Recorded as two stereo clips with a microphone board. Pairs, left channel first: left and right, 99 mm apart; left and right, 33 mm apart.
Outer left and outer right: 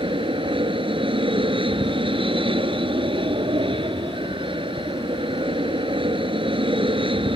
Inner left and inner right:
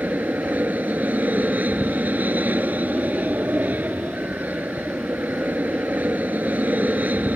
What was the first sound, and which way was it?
An aircraft, 65° right (ahead or behind).